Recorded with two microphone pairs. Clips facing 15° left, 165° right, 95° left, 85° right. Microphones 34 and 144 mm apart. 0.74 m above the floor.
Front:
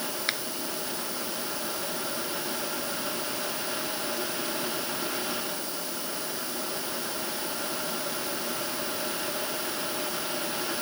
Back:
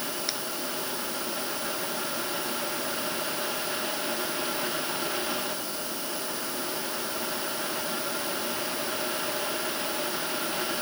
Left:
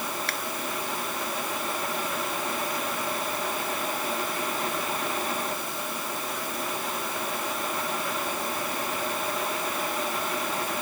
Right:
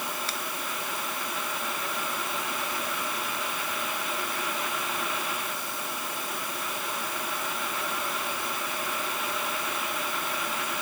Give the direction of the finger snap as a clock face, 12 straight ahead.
10 o'clock.